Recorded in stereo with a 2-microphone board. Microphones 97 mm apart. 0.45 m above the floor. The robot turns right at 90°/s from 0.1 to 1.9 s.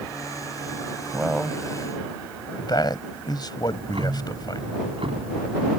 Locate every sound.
1.1 s a man speaking: 15° right (ahead or behind); by 4.6 s 50° left (ahead or behind)
3.6 s ticking: 75° right (ahead or behind)